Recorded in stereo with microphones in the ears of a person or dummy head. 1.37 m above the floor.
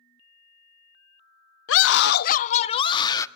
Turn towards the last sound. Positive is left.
turn(degrees=20)  # may be behind; listen again after turning